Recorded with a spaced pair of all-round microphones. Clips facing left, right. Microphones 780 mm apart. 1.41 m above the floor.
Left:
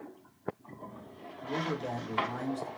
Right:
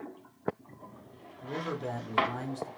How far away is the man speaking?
About 1.0 m.